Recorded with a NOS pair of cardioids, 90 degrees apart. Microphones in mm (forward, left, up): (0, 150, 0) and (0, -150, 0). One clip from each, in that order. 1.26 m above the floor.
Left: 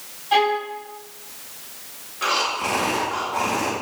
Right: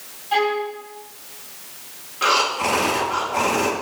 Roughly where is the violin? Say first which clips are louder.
Left 1 dB; ahead left.